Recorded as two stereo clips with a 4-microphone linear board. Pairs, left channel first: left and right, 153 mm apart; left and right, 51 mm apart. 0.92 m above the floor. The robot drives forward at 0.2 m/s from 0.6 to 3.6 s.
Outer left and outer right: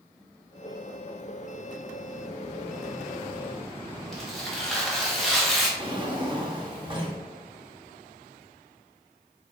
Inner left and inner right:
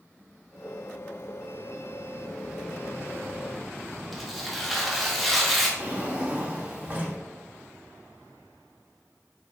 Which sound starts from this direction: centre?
Tearing paper, at 4.1 s.